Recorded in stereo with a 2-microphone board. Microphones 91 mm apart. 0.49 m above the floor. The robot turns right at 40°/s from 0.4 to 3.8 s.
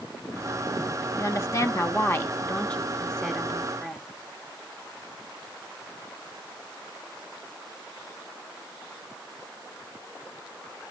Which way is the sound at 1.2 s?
90° left.